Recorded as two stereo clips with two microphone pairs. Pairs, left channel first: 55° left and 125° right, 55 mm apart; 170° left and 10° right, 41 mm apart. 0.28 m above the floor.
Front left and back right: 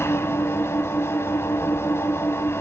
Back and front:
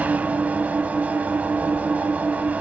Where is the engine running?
30° left, 1.0 m.